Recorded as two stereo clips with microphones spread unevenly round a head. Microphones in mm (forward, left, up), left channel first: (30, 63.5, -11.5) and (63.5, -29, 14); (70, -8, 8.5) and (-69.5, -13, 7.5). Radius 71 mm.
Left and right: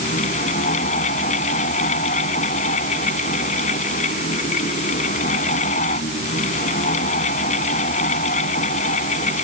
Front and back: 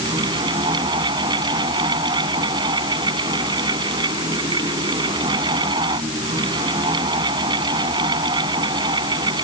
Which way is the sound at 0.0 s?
120° left.